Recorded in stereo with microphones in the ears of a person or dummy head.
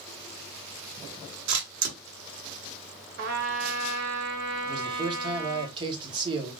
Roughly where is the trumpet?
Right.